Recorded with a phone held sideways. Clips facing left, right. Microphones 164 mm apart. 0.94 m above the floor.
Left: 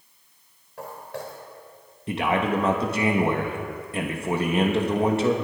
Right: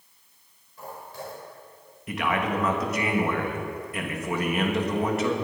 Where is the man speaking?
30° left (ahead or behind), 1.3 m.